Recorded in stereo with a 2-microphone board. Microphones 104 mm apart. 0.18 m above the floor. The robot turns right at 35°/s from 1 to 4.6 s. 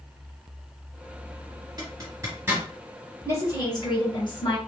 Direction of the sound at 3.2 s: 35° left.